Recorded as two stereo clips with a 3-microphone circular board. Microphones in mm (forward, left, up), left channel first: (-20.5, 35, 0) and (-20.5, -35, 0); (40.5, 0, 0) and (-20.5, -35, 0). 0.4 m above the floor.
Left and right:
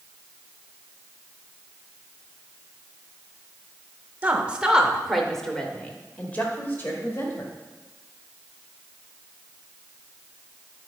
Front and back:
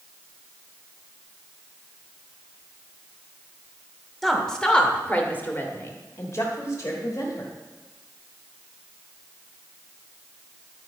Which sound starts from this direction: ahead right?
A woman speaking, at 4.2 s.